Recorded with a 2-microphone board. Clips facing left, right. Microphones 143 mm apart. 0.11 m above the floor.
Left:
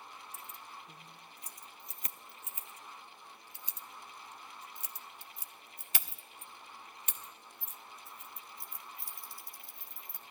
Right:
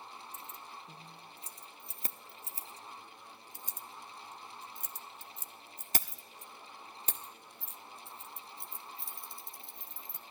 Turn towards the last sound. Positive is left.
turn(degrees=-20)  # may be behind; listen again after turning